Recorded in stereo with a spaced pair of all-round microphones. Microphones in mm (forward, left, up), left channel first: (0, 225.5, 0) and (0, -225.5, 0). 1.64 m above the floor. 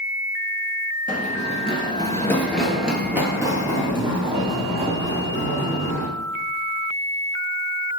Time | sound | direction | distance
1.1 | running footsteps | 15° left (ahead or behind) | 1.8 m